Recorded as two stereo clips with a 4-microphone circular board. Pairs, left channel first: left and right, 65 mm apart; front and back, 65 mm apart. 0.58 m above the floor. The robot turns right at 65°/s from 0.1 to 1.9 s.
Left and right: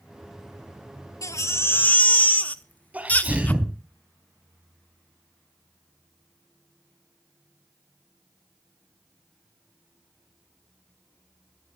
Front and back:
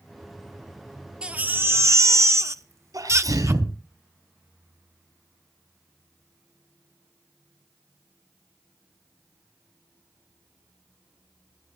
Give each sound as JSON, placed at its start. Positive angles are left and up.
{"t": 1.2, "sound": "a baby crying", "azimuth_deg": 105, "distance_m": 0.8}
{"t": 2.9, "sound": "a sneeze", "azimuth_deg": -160, "distance_m": 3.5}